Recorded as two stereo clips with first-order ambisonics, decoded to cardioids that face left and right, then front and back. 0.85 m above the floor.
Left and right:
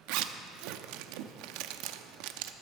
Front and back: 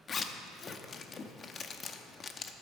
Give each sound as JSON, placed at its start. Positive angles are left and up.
{"t": 0.1, "sound": "a zipper", "azimuth_deg": -70, "distance_m": 0.7}